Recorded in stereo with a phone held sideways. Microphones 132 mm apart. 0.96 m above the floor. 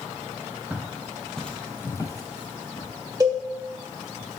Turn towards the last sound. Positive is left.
turn(degrees=-30)  # may be behind; listen again after turning